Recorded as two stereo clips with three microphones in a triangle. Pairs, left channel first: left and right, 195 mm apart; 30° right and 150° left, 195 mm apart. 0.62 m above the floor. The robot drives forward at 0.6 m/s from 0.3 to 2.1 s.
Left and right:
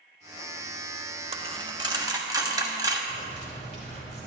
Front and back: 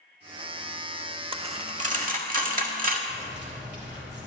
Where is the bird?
125° left, 2.5 m.